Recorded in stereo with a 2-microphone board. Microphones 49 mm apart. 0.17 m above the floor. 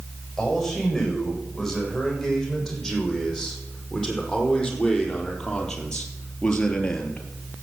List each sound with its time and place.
0.4 s a man speaking: 5° left (ahead or behind), 8.5 m; by 7.2 s 15° left (ahead or behind), 2.5 m